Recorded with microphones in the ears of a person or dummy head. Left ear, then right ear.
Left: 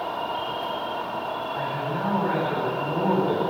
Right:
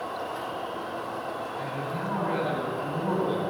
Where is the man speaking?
65° left (ahead or behind), 9 m.